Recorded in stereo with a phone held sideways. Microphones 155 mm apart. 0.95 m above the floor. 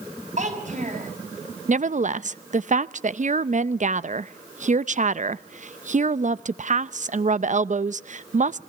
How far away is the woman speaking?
About 0.6 m.